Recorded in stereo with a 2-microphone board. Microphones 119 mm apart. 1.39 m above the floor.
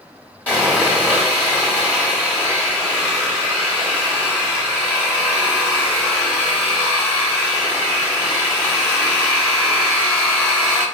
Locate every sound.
0.5 s sawing: 10° left (ahead or behind), 1.3 m